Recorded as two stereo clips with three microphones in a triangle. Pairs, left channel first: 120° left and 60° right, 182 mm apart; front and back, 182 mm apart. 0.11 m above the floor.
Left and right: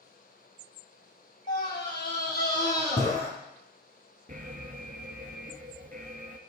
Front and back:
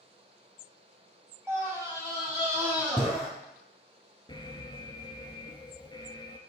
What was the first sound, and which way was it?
A scream, 105° left.